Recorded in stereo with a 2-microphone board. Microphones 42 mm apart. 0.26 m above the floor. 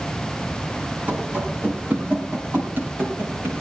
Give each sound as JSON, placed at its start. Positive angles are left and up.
{"t": 1.1, "sound": "running footsteps", "side_deg": -40, "distance_m": 8.0}